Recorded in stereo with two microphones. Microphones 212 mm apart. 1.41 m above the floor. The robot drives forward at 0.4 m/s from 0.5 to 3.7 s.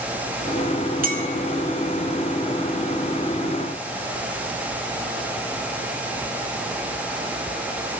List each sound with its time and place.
1.0 s a clink: 40° right (ahead or behind), 1.4 m; by 1.3 s 45° right (ahead or behind), 1.3 m